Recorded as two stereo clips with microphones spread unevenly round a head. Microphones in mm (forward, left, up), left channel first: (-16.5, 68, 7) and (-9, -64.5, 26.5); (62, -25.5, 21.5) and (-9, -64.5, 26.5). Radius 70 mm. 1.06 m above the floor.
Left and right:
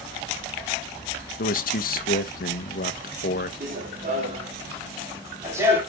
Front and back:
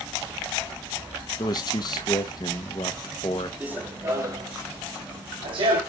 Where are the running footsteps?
80° right, 2 m; by 5.8 s 155° right, 2.5 m.